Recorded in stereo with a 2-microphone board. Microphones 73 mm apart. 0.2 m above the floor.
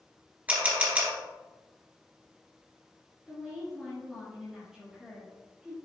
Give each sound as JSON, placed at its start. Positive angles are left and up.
{"t": 0.5, "sound": "a camera shutter", "side_deg": -20, "distance_m": 2.0}
{"t": 3.3, "sound": "a woman speaking", "side_deg": -10, "distance_m": 2.5}